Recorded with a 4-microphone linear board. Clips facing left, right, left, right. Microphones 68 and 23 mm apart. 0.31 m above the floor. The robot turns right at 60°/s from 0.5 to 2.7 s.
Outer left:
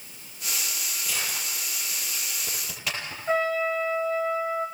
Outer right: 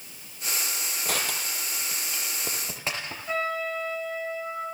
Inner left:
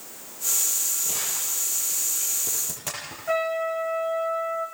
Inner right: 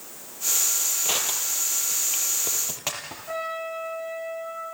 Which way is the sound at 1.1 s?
50° right (ahead or behind).